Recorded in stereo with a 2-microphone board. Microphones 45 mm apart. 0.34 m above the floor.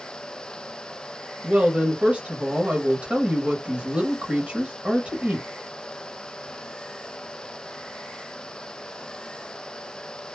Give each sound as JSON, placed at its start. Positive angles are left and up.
{"t": 1.4, "sound": "a woman speaking", "side_deg": -35, "distance_m": 1.2}